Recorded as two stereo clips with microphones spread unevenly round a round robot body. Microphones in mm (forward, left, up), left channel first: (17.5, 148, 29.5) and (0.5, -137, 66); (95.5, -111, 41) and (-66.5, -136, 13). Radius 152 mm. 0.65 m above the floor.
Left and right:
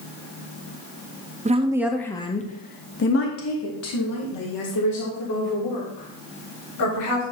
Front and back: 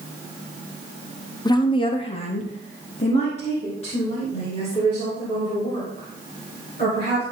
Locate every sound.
1.4 s a woman speaking: 45° right, 0.8 m; by 7.2 s 80° left, 4 m